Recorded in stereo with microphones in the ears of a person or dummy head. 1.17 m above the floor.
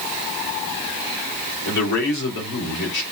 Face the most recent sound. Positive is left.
turn(degrees=60)  # may be behind; listen again after turning